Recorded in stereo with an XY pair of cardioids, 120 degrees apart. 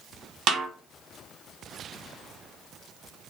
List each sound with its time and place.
0.5 s a snare drum: 55° right, 1.0 m